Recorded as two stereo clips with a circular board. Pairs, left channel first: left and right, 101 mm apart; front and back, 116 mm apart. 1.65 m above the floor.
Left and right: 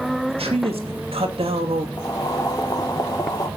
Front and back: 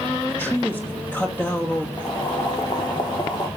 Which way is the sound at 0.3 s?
70° right.